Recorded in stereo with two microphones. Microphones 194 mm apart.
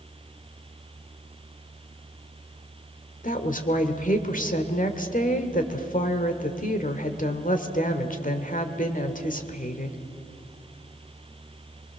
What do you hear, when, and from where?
3.2 s a woman speaking: 45° left (ahead or behind), 1.8 m